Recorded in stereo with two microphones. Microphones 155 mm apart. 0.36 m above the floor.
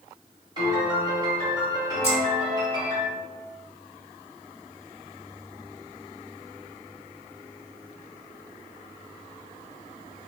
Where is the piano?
25° right (ahead or behind), 1.6 m.